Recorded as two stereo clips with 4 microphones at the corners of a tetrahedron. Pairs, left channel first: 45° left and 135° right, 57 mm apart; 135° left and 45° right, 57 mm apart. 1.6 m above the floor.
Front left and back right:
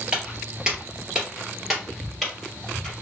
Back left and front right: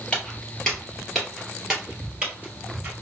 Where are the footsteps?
Straight behind, 1.7 m; by 2.9 s 35° right, 1.7 m.